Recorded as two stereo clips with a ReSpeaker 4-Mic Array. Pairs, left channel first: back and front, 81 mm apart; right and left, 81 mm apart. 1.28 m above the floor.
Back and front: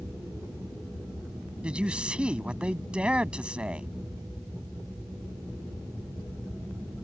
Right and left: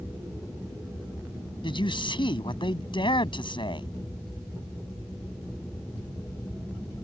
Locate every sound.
1.6 s a man speaking: 80° right